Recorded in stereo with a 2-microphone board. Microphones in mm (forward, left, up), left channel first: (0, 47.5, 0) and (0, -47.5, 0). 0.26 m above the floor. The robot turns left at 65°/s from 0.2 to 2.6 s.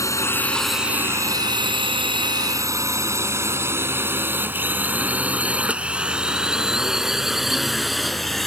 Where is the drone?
35° left (ahead or behind); by 8.5 s centre (ahead or behind).